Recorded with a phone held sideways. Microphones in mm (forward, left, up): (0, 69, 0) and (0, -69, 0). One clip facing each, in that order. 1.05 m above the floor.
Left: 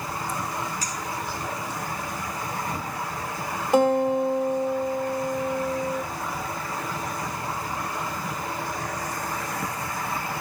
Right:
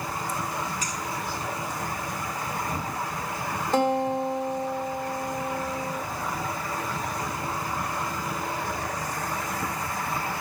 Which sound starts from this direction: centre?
A guitar, at 3.7 s.